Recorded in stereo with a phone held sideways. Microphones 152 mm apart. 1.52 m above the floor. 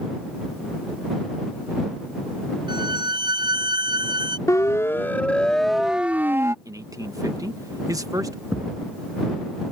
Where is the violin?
30° right (ahead or behind).